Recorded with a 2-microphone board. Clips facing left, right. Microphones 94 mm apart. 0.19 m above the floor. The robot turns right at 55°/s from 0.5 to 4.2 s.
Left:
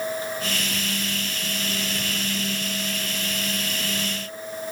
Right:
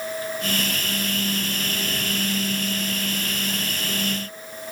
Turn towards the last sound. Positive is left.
No sound to turn to.